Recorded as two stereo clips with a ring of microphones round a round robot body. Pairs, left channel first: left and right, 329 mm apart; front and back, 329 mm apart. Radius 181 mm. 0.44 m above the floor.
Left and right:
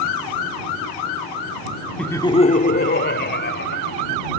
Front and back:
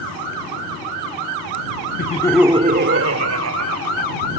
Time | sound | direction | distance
2.0 | laughter | 5° left | ?